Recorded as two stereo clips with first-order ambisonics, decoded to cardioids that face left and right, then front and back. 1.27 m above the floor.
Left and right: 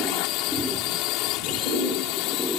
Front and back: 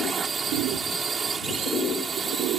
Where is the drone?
110° left.